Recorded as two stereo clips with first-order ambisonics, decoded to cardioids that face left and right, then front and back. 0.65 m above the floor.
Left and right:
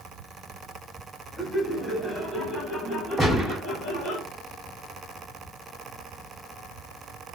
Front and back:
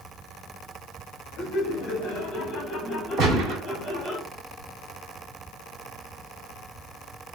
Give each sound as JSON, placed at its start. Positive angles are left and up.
{"t": 1.4, "sound": "laughter", "azimuth_deg": -10, "distance_m": 1.5}
{"t": 3.2, "sound": "a gunshot", "azimuth_deg": 180, "distance_m": 1.6}